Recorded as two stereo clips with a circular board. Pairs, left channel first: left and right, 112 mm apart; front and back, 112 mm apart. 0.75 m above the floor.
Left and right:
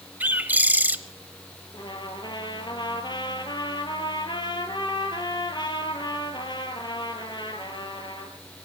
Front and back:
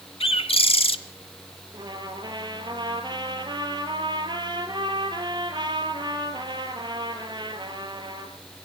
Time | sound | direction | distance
0.2 | a bird | 15° right | 0.9 m
1.7 | a trumpet | 135° left | 2.5 m